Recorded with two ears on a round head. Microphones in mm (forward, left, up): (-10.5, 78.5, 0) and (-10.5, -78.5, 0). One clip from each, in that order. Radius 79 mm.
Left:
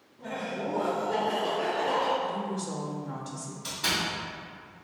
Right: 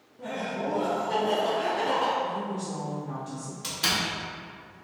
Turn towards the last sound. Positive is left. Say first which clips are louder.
# right 2 dB
turn(degrees=-60)  # may be behind; listen again after turning